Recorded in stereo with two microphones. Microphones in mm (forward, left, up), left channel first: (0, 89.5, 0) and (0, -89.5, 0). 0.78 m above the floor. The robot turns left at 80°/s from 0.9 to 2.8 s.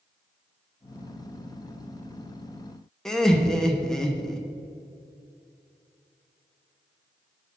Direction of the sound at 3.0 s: 5° left (ahead or behind).